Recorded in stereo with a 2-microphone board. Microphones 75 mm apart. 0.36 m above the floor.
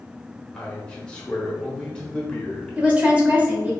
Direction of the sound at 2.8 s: 20° right (ahead or behind).